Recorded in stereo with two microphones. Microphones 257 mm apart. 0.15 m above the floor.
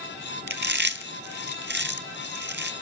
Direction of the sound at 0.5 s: 45° right (ahead or behind).